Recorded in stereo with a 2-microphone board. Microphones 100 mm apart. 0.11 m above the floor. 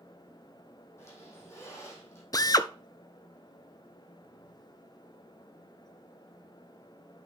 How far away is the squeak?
About 3.5 m.